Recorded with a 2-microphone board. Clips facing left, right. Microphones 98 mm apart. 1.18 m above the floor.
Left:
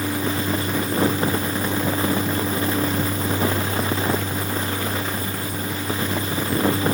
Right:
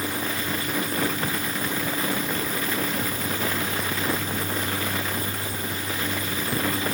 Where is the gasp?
No gasp in this recording.